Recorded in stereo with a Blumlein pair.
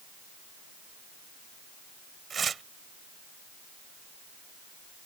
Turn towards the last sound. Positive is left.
turn(degrees=-20)